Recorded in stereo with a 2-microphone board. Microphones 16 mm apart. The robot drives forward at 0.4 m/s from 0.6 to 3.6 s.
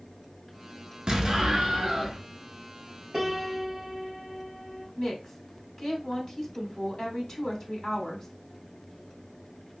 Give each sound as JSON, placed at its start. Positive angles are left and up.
{"t": 1.1, "sound": "an explosion", "side_deg": -60, "distance_m": 0.8}
{"t": 3.1, "sound": "a piano", "side_deg": -15, "distance_m": 1.7}
{"t": 5.0, "sound": "a woman speaking", "side_deg": 25, "distance_m": 1.5}